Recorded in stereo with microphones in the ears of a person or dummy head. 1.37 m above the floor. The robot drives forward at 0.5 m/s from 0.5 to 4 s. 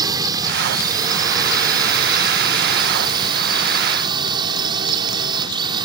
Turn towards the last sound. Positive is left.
turn(degrees=-25)  # may be behind; listen again after turning